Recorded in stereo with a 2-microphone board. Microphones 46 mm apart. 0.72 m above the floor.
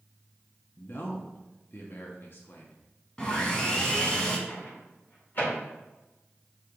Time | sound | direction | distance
0.8 | a man speaking | 50° left (ahead or behind) | 0.8 m
3.2 | sawing | 20° left (ahead or behind) | 1.1 m
4.5 | a microwave | 45° left (ahead or behind) | 2.0 m